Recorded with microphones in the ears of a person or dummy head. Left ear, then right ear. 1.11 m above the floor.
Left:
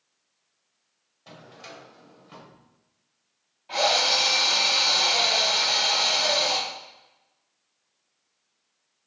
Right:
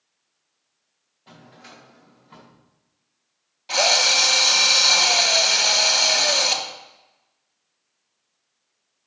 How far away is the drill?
About 1.1 m.